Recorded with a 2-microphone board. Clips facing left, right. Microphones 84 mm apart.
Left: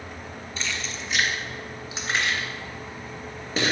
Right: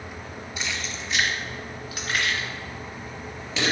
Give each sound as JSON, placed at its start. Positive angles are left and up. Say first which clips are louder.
{"t": 0.6, "sound": "keys jangling", "louder": "even", "side_deg": -10, "distance_m": 1.6}